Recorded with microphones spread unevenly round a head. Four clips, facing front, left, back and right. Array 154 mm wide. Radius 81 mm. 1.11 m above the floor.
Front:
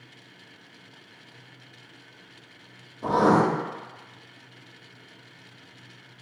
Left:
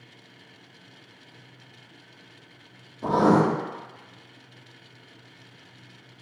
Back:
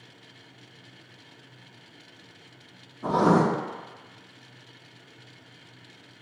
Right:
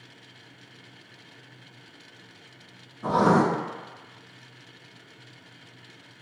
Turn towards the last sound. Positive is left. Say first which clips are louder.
# left 1 dB, front 1 dB
turn(degrees=65)